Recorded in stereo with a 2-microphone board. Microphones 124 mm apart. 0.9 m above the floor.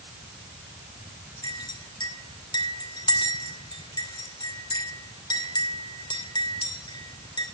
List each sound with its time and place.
1.4 s a clink: 35° left (ahead or behind), 2.5 m